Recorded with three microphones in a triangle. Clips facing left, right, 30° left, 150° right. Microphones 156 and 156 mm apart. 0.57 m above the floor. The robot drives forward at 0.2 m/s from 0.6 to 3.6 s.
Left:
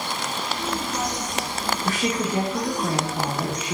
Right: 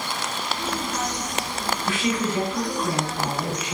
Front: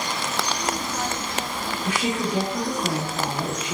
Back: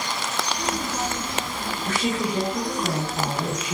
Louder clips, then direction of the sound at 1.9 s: Right 1 dB, even; 100° left.